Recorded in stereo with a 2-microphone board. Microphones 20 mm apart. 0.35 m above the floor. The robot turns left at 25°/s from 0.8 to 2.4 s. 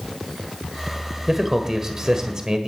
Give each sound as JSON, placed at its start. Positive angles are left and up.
{"t": 1.3, "sound": "a man speaking", "side_deg": -15, "distance_m": 1.5}